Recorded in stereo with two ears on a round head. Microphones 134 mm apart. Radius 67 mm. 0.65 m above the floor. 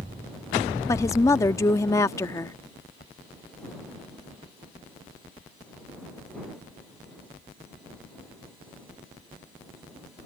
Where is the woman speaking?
20° left (ahead or behind).